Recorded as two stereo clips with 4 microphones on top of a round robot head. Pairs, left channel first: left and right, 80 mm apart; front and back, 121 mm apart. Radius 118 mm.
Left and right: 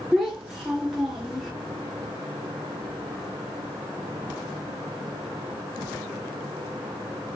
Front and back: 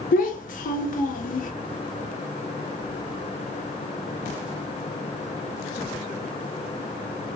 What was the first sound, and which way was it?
A child speaking, straight ahead.